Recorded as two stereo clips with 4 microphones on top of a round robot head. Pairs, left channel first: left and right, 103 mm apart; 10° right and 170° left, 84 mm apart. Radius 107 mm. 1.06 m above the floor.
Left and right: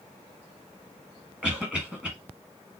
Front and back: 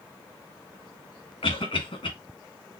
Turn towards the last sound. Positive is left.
turn(degrees=-10)